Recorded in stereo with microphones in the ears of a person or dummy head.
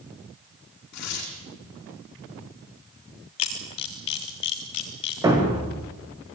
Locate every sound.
0.9 s tearing paper: 60° left (ahead or behind), 5.5 m
3.4 s a camera shutter: 30° left (ahead or behind), 2.0 m
5.2 s a thud: 20° right (ahead or behind), 5.5 m